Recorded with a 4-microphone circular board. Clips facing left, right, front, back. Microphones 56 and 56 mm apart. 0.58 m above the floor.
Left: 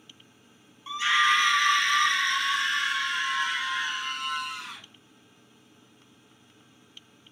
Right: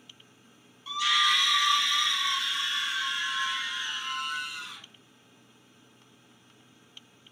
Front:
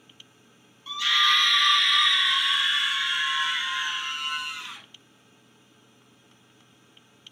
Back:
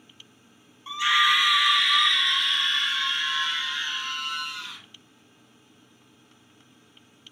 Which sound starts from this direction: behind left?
A scream, at 0.9 s.